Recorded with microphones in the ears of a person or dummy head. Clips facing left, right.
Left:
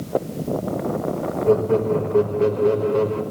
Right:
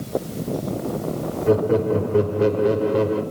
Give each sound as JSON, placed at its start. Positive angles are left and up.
{"t": 1.5, "sound": "laughter", "side_deg": -15, "distance_m": 2.5}